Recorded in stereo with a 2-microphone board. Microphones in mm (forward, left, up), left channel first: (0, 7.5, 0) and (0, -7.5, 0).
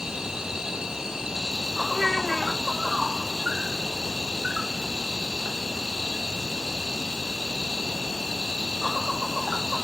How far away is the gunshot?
No gunshot in this recording.